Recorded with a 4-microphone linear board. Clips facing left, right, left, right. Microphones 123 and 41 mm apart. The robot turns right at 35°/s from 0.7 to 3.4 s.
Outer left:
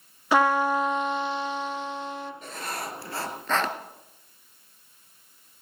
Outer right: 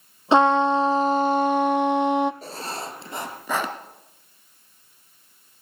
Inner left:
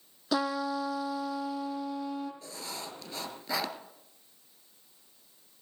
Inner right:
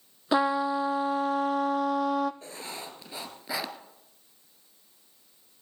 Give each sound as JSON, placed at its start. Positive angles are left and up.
{"t": 0.3, "sound": "a trumpet", "azimuth_deg": -155, "distance_m": 0.7}
{"t": 2.4, "sound": "writing", "azimuth_deg": -50, "distance_m": 1.6}